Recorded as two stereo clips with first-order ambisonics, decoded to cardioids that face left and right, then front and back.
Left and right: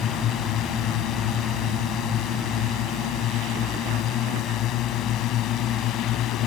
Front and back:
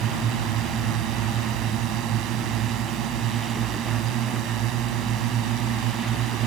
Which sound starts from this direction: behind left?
A drone, at 0.0 s.